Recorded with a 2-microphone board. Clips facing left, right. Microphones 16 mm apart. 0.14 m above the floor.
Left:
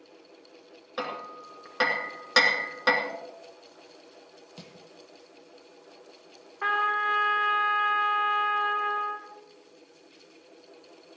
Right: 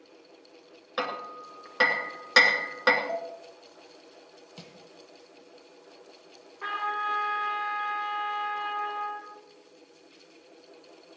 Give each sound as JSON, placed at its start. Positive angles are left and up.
{"t": 1.0, "sound": "hammering", "side_deg": -25, "distance_m": 1.9}
{"t": 3.1, "sound": "dishes clattering", "side_deg": -50, "distance_m": 3.5}
{"t": 4.6, "sound": "crushing", "side_deg": -35, "distance_m": 1.3}
{"t": 6.6, "sound": "a trumpet", "side_deg": 60, "distance_m": 3.5}